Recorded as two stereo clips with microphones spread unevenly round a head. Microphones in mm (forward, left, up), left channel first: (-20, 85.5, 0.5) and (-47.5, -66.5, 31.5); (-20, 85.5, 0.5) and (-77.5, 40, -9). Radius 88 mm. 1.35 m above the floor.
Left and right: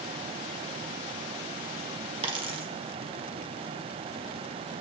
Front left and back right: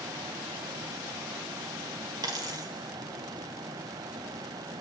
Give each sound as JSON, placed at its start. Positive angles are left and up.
{"t": 2.2, "sound": "a dropped coin", "azimuth_deg": -120, "distance_m": 1.3}